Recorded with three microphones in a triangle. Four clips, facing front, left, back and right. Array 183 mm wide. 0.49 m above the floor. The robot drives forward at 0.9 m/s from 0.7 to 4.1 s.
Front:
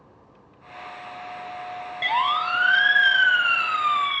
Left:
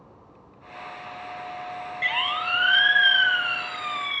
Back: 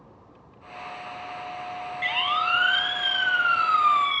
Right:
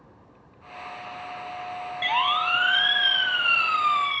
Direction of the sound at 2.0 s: 25° right.